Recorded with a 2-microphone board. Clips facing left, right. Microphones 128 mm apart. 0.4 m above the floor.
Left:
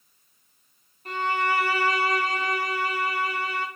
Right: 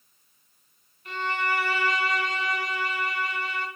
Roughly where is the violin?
Left.